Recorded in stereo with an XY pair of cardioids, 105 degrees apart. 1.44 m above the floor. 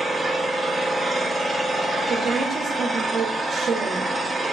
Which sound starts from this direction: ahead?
An engine running, at 0.0 s.